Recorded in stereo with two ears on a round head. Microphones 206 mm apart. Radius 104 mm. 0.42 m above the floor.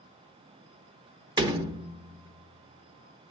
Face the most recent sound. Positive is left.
turn(degrees=-20)  # may be behind; listen again after turning